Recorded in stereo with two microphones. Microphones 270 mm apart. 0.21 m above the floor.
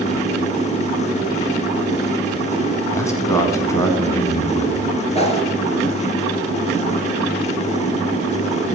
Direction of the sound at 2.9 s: 10° left (ahead or behind).